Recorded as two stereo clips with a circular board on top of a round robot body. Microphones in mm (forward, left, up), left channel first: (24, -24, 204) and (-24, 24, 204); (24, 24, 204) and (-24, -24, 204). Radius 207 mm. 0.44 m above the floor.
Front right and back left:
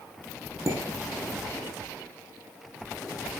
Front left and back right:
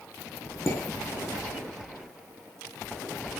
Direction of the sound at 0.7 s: 95° left.